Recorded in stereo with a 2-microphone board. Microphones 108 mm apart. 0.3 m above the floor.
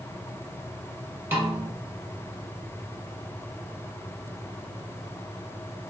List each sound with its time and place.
1.3 s a snare drum: 20° right (ahead or behind), 1.7 m